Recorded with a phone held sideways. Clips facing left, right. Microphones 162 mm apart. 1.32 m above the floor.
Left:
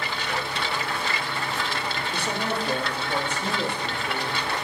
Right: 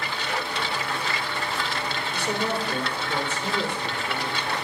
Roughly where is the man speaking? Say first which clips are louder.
Right 2 dB; left.